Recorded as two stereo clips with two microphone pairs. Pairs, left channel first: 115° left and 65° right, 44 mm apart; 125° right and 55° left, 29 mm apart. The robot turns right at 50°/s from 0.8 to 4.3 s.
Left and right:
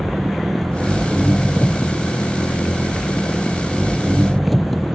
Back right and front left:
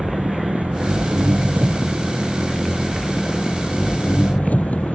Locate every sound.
0.0 s an engine running: 30° left; by 5.0 s 155° right